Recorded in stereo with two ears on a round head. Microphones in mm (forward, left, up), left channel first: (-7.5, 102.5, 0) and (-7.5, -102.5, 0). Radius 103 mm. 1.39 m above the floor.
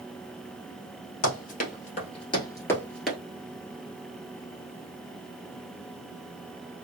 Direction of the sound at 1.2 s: 40° left (ahead or behind).